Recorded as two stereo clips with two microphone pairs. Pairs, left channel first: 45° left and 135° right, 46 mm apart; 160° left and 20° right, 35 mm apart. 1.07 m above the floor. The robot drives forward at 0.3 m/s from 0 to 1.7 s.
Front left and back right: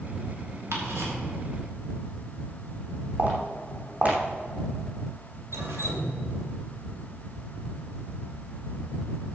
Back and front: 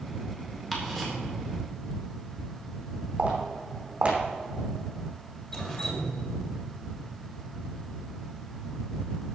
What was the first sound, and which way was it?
Ticking, 115° right.